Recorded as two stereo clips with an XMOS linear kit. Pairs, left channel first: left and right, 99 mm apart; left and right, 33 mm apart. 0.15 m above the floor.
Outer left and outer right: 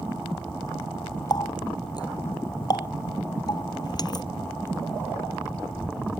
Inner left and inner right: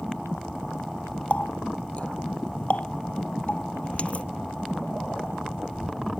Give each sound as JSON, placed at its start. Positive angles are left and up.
{"t": 1.3, "sound": "a running tap", "side_deg": 45}